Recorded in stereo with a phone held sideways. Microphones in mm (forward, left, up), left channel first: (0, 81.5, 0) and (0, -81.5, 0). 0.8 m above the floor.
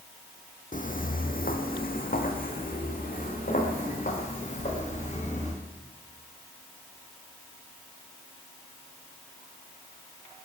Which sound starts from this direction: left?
Footsteps, at 0.7 s.